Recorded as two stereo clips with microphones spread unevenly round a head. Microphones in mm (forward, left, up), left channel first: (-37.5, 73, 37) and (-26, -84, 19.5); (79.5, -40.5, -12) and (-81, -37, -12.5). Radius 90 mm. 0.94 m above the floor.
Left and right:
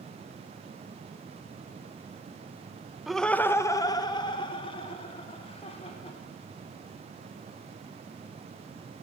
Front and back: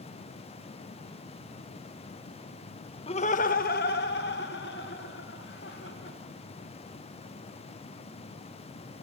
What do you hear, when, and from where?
3.1 s laughter: 10° right, 0.9 m; by 6.2 s 35° left, 4 m